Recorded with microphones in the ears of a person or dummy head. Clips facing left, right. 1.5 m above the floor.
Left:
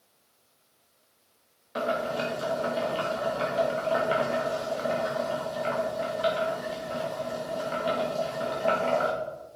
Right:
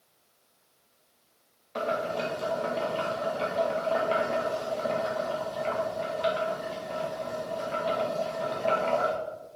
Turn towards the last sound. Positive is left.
turn(degrees=10)  # may be behind; listen again after turning